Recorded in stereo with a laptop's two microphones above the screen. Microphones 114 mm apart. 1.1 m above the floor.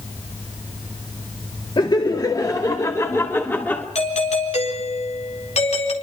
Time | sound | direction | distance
1.8 | laughter | 45° left (ahead or behind) | 1.9 m
4.0 | a doorbell | 75° left (ahead or behind) | 4 m